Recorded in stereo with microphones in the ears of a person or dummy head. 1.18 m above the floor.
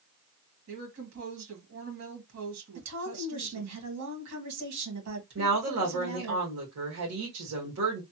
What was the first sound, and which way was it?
A woman speaking, 75° right (ahead or behind).